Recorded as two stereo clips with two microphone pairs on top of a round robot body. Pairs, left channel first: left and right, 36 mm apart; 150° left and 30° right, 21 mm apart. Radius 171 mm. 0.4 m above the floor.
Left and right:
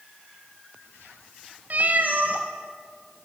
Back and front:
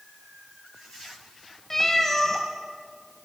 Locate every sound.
1.7 s a cat meowing: 135° right, 1.2 m